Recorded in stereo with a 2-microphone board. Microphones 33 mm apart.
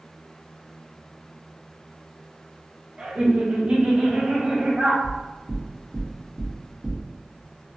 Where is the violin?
No violin in this recording.